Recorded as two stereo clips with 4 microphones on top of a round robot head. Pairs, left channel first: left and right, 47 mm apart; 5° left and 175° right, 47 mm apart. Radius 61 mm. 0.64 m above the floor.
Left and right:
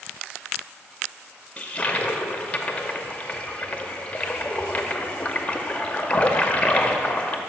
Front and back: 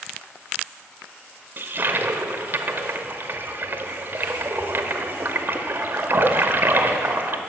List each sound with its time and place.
1.6 s a toilet flushing: 150° left, 0.7 m